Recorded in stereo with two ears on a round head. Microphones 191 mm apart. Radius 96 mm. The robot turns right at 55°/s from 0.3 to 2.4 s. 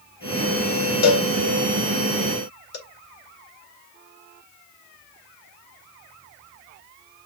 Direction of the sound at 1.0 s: 50° left (ahead or behind).